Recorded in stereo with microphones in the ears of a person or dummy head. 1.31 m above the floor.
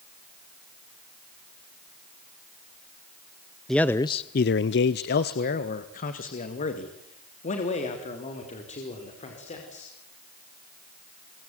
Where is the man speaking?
5° left (ahead or behind), 0.8 m; by 9.9 s 35° left (ahead or behind), 5.5 m.